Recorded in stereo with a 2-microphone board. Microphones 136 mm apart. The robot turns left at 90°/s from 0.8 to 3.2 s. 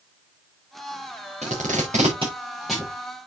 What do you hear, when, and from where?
1.4 s tape being pulled: 65° right (ahead or behind), 4.5 m; by 2.9 s 20° left (ahead or behind), 4.5 m